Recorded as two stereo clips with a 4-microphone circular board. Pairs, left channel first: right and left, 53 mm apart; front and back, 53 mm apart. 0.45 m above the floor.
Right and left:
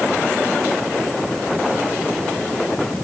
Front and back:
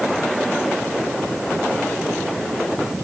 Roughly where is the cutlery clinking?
I don't hear cutlery clinking.